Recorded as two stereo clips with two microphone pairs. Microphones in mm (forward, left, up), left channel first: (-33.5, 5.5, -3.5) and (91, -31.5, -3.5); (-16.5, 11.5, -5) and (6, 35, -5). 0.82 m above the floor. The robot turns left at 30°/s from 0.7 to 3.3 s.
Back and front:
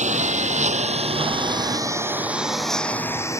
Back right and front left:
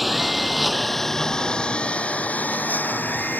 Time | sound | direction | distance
0.0 | a lawn mower | 40° right | ?